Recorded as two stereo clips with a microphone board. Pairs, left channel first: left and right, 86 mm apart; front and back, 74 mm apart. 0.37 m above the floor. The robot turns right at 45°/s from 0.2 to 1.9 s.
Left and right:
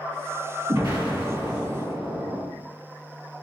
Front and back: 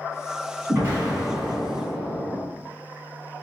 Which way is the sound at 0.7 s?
125° right.